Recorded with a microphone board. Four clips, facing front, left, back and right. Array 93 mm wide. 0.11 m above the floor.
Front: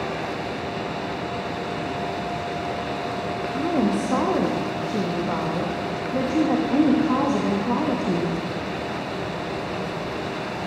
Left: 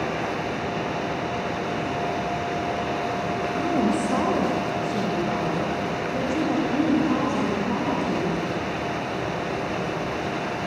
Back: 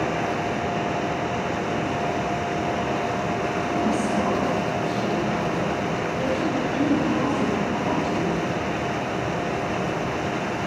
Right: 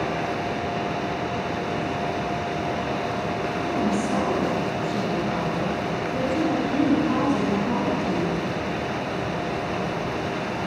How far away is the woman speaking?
About 7 m.